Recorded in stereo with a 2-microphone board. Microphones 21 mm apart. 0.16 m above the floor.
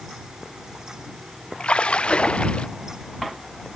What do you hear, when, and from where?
1.6 s a splash: 60° left (ahead or behind)